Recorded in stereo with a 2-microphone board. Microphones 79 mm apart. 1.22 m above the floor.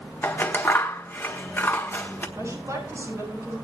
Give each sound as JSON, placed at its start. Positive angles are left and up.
{"t": 0.2, "sound": "scissors", "side_deg": 30, "distance_m": 1.4}
{"t": 2.4, "sound": "a woman speaking", "side_deg": -35, "distance_m": 10.0}